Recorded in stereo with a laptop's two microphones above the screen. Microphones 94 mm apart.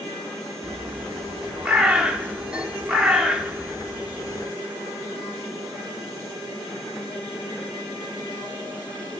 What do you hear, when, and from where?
0.6 s a bird: 10° right (ahead or behind), 0.8 m